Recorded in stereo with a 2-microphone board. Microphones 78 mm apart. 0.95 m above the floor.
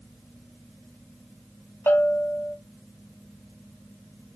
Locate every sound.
1.9 s a bell: 25° left (ahead or behind), 0.7 m